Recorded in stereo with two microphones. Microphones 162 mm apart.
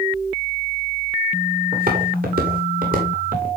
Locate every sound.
1.7 s footsteps: 70° right (ahead or behind), 9.5 m; by 3.5 s 65° right (ahead or behind), 7 m